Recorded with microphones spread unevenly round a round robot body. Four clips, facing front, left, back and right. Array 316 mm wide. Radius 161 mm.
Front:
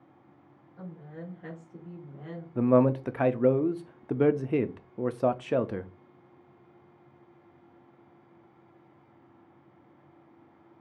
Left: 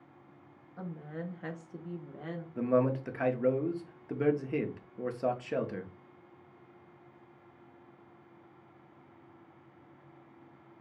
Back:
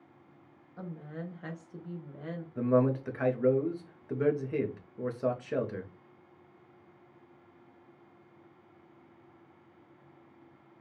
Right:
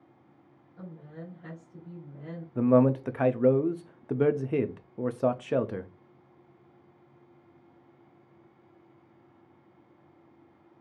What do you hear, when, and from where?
0.8 s a woman speaking: 145° left, 1.2 m; by 2.5 s 100° left, 1.5 m
2.5 s a man speaking: 30° right, 0.5 m